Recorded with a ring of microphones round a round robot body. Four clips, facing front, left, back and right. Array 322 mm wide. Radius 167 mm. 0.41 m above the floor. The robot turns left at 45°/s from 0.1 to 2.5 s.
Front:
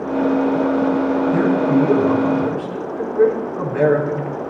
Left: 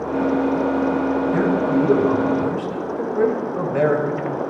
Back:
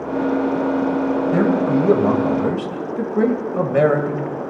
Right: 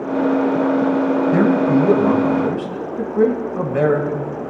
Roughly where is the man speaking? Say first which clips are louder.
Right 4 dB, front 1 dB; behind right.